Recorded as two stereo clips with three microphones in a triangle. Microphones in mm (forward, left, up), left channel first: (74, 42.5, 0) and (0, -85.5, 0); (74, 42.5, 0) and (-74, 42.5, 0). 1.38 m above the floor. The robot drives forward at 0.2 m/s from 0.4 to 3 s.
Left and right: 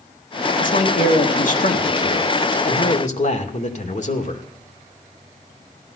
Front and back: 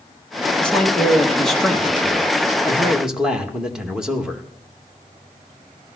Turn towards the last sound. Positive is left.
turn(degrees=95)